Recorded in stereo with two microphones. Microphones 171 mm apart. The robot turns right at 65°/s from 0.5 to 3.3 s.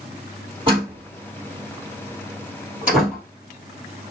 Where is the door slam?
30° right (ahead or behind), 3.5 m; by 3.2 s 15° left (ahead or behind), 3.5 m.